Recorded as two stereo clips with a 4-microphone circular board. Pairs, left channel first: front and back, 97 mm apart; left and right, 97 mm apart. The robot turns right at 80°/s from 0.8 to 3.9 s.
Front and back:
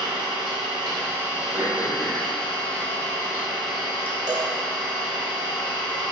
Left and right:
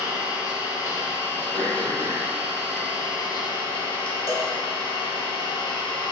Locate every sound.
0.0 s an engine running: 145° right, 1.4 m; by 6.1 s 105° left, 1.4 m
1.5 s throat clearing: 125° right, 1.4 m; by 4.1 s 65° left, 1.4 m
4.3 s a cowbell: 150° left, 1.0 m